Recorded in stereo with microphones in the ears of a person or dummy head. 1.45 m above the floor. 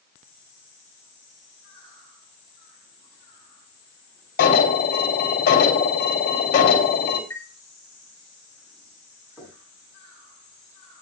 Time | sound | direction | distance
4.4 | an alarm | 45° left (ahead or behind) | 3 m
7.3 | a chime | 15° left (ahead or behind) | 4.5 m
9.4 | knocking | 5° right (ahead or behind) | 8 m